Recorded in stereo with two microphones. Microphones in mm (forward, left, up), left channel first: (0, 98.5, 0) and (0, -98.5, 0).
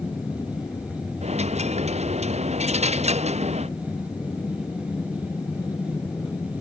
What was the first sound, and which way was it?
An aircraft, 15° left (ahead or behind).